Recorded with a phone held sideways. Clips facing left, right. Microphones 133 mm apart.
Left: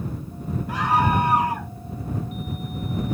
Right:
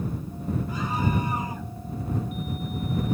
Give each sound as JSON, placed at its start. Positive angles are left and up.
{"t": 0.7, "sound": "a scream", "side_deg": 85}